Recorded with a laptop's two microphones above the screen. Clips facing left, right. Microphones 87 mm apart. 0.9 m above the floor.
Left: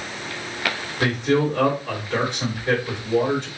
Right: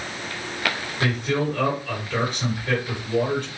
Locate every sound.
1.0 s a man speaking: 25° left (ahead or behind), 3 m